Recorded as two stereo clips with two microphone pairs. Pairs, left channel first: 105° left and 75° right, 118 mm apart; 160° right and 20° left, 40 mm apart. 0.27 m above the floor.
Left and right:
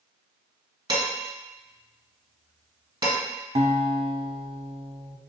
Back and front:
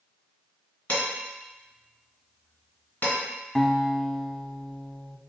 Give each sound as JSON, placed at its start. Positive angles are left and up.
{"t": 0.9, "sound": "dishes clattering", "azimuth_deg": -120, "distance_m": 2.0}
{"t": 3.5, "sound": "a guitar", "azimuth_deg": -80, "distance_m": 0.5}